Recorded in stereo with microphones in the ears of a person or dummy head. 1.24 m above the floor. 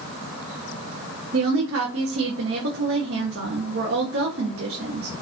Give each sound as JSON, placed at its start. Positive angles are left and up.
{"t": 1.3, "sound": "a woman speaking", "side_deg": -70, "distance_m": 0.9}